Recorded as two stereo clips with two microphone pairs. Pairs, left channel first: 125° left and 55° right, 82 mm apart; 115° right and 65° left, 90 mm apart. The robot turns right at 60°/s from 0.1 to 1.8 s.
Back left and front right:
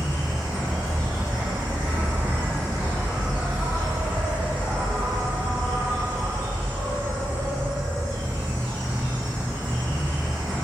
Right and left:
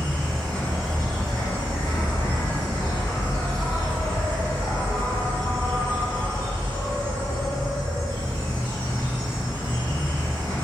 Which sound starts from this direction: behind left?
An insect, at 0.0 s.